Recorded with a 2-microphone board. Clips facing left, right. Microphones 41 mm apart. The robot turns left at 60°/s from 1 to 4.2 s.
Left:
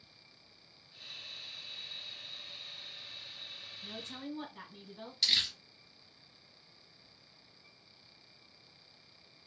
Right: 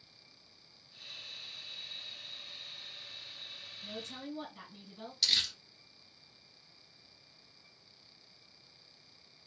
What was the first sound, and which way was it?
A woman speaking, 20° left (ahead or behind).